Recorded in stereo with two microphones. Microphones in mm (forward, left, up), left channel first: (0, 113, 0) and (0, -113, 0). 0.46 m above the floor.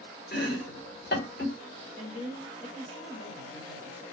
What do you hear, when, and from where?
0.3 s chopping: 40° left (ahead or behind), 1.7 m
2.0 s a woman speaking: 55° left (ahead or behind), 2.5 m